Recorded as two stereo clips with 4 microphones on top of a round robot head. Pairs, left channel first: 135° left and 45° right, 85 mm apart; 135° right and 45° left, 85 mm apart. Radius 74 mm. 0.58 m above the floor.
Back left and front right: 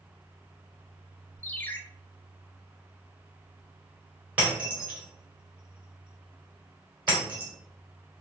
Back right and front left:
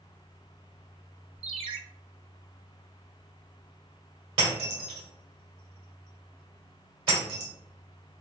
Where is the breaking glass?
30° left, 1.9 m.